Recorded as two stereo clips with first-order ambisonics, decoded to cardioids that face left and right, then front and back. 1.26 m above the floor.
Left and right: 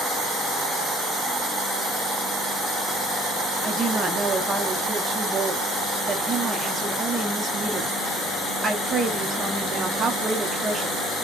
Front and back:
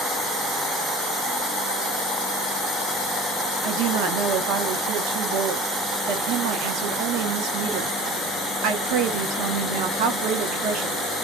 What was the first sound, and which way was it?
A woman speaking, 160° right.